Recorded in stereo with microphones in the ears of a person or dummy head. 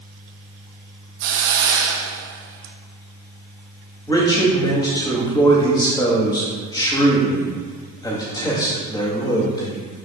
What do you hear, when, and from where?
1.2 s a hiss: 80° right, 0.9 m
4.1 s a man speaking: 20° left (ahead or behind), 1.6 m